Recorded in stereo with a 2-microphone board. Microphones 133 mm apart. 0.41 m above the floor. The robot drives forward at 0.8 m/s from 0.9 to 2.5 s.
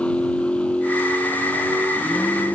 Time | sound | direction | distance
0.0 | a vehicle | 10° left (ahead or behind) | ?